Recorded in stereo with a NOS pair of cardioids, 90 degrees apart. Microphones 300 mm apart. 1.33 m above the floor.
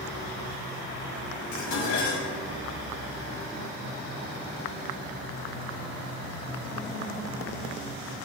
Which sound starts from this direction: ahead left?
Dishes clattering, at 1.5 s.